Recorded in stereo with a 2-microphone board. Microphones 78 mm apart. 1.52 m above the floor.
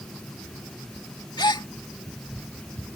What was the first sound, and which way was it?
A gasp, 60° left (ahead or behind).